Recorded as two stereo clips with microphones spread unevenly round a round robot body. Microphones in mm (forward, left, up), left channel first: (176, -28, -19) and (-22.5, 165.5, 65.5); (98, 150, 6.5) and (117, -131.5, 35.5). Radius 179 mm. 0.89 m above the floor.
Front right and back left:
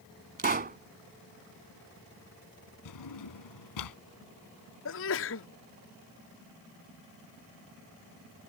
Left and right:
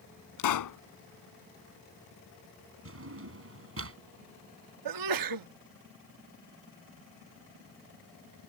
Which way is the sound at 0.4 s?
80° left.